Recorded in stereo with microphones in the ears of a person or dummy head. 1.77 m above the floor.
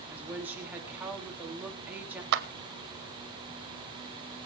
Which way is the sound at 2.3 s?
70° right (ahead or behind).